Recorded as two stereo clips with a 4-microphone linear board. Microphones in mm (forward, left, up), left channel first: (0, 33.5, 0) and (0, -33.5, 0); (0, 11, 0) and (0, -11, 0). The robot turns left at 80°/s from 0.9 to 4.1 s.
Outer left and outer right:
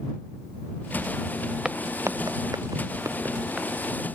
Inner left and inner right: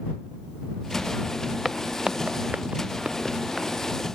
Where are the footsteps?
10° right (ahead or behind); by 3.7 s 5° right (ahead or behind).